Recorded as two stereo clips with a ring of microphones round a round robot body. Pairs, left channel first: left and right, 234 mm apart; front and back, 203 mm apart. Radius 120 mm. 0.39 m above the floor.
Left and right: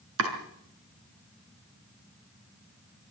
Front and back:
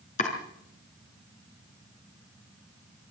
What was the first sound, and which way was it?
Chopping, 60° right.